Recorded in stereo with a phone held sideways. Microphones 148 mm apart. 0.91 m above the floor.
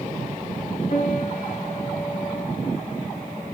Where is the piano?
55° left (ahead or behind), 3 m.